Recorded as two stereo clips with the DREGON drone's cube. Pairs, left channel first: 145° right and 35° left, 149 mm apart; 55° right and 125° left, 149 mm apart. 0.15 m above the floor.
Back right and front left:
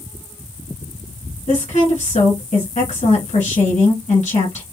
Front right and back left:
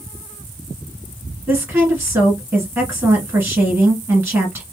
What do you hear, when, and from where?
1.5 s a woman speaking: 165° right, 1.8 m